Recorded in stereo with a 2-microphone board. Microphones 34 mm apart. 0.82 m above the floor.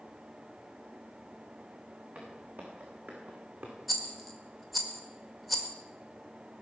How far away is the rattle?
About 1.5 m.